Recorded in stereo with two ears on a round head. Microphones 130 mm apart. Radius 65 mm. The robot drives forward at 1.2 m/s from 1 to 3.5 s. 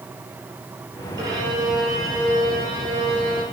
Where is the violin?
25° right (ahead or behind), 8 m; by 3.4 s 40° right (ahead or behind), 6 m.